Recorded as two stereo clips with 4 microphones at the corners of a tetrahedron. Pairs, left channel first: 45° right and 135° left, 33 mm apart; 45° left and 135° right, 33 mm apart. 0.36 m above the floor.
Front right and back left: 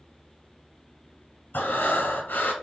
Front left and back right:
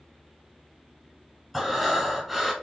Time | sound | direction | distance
1.5 | breathing | 45° right | 1.0 m